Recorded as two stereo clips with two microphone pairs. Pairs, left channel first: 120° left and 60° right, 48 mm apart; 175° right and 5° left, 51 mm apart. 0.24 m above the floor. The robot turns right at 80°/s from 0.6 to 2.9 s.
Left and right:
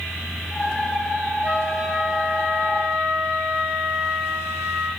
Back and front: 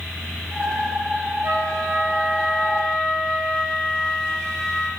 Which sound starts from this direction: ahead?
A flute, at 1.4 s.